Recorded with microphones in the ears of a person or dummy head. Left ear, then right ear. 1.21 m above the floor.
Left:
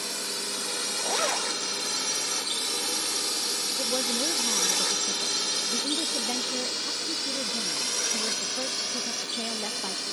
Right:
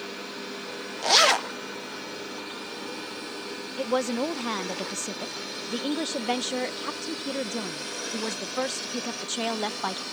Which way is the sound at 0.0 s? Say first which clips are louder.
Left 4 dB; 75° left (ahead or behind).